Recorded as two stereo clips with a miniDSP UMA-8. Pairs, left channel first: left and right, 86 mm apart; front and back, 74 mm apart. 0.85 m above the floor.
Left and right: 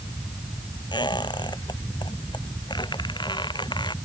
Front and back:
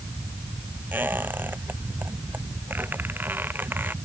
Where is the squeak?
115° left.